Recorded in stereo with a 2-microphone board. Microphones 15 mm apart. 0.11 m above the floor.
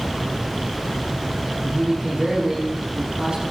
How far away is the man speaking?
About 6 m.